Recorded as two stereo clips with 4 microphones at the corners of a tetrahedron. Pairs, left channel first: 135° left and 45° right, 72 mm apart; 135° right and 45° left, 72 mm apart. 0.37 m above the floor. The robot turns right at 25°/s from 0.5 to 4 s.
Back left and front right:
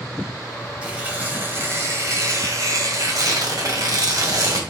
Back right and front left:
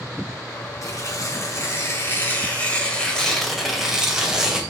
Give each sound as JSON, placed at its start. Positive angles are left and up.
{"t": 0.8, "sound": "tearing paper", "azimuth_deg": -115, "distance_m": 1.5}